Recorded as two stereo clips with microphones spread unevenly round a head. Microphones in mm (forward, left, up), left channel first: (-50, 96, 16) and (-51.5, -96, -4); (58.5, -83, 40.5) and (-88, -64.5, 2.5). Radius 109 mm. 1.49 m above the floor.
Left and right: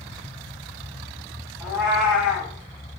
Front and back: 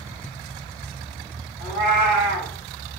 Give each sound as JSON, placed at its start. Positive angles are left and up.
{"t": 1.6, "sound": "a cat meowing", "azimuth_deg": 170, "distance_m": 0.7}